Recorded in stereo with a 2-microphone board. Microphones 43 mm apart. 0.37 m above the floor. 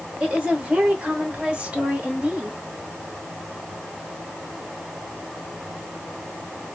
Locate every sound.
0.2 s a woman speaking: 20° right (ahead or behind), 1.0 m